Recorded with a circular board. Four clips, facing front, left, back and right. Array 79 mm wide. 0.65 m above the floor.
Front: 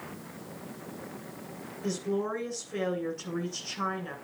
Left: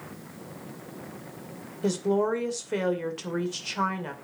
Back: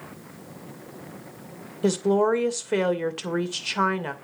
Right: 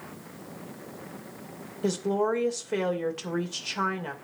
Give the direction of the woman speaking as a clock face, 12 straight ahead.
6 o'clock.